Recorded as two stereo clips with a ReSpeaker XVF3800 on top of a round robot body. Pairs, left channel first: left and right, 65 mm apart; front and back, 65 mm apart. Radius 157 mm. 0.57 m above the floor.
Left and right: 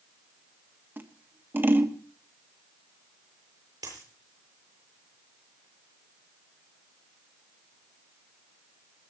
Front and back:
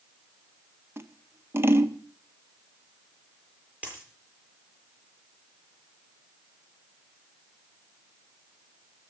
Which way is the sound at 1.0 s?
140° right.